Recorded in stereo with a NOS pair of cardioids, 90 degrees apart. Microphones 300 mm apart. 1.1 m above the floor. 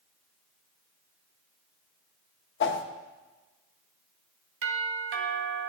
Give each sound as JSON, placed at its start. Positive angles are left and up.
{"t": 2.6, "sound": "a whoosh", "azimuth_deg": 40, "distance_m": 1.0}
{"t": 4.6, "sound": "a doorbell", "azimuth_deg": -45, "distance_m": 2.0}